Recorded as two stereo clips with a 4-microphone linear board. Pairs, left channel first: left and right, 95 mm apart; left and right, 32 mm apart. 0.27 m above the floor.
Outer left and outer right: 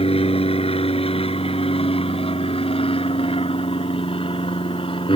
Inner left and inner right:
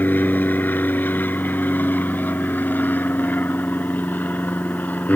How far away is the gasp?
I don't hear a gasp.